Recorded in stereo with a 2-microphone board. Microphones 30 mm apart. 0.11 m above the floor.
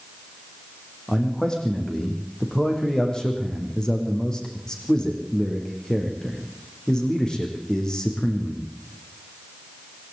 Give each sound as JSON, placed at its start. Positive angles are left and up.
{"t": 1.1, "sound": "a man speaking", "side_deg": 20, "distance_m": 6.5}